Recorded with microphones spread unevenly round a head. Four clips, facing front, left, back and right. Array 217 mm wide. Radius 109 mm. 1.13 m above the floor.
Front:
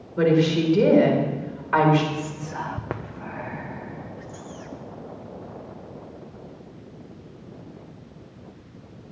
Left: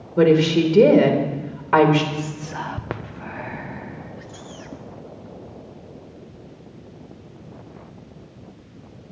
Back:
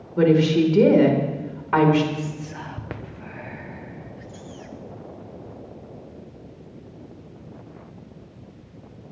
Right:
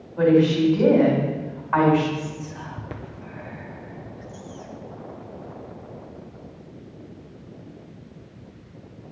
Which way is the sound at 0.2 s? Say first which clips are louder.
Left 2 dB, back 2 dB; 125° left.